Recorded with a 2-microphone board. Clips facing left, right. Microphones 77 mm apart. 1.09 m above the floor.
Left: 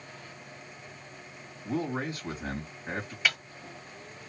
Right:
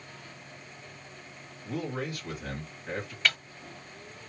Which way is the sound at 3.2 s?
5° left (ahead or behind).